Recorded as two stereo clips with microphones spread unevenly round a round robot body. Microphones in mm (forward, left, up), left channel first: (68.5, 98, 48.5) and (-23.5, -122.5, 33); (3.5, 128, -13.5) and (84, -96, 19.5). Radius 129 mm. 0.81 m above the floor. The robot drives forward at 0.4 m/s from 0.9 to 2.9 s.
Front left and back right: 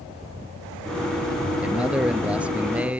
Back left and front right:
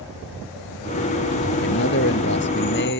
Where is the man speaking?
160° left.